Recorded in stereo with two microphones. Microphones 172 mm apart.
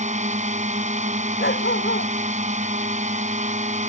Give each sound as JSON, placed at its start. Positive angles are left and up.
{"t": 0.0, "sound": "a drone", "side_deg": -45}
{"t": 1.4, "sound": "a dog barking", "side_deg": 80}